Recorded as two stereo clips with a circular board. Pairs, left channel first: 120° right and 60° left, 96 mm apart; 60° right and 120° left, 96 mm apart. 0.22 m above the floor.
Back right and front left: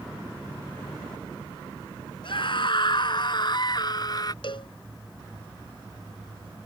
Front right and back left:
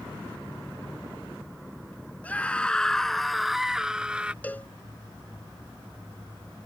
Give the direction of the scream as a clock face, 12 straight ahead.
4 o'clock.